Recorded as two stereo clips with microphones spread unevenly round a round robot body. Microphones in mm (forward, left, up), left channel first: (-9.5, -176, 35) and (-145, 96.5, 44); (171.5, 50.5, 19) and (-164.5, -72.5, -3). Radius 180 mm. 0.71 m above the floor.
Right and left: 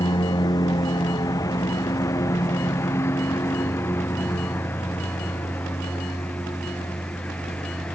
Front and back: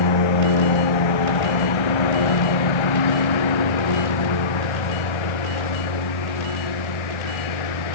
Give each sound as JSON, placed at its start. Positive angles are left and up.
{"t": 0.0, "sound": "a lawn mower", "azimuth_deg": 15}